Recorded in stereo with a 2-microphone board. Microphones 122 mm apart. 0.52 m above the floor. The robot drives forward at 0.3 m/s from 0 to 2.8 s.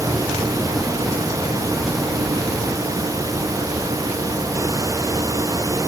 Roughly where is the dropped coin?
No dropped coin in this recording.